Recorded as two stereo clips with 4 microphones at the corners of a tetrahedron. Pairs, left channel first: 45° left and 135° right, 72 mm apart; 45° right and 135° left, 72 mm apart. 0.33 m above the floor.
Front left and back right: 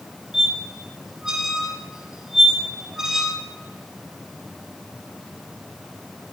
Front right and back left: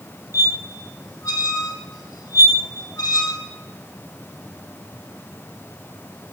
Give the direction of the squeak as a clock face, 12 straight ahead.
2 o'clock.